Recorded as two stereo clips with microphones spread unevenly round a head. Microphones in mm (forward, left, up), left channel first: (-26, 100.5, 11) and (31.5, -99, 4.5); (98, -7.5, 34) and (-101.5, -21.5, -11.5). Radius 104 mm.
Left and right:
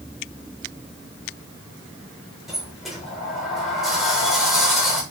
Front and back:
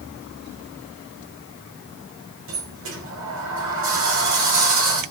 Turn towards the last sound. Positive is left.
turn(degrees=-165)